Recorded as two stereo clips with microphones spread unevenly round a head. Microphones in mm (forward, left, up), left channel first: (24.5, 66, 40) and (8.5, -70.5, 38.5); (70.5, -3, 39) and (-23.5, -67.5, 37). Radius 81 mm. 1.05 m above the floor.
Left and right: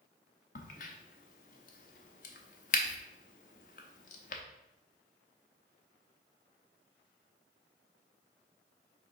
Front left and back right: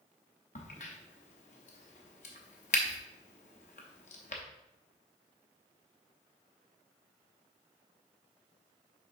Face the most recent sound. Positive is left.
turn(degrees=70)